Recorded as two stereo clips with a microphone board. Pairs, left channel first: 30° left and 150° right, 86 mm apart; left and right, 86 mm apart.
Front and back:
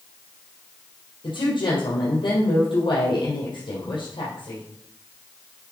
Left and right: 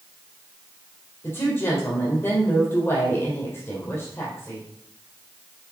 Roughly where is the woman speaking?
Ahead left.